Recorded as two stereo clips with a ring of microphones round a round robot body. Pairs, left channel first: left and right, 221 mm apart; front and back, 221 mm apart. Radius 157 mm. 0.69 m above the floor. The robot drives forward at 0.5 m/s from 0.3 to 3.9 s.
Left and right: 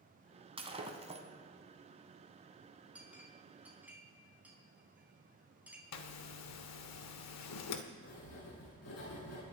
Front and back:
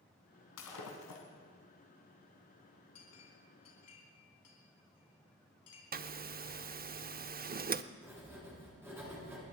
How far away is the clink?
About 4.5 m.